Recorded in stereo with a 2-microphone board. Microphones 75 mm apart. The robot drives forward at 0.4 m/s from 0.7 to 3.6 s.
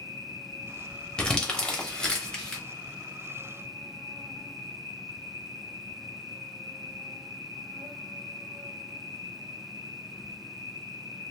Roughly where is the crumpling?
Centre.